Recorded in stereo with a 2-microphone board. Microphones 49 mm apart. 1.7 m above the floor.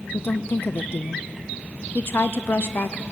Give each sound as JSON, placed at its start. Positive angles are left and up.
{"t": 0.1, "sound": "a woman speaking", "side_deg": 55, "distance_m": 0.6}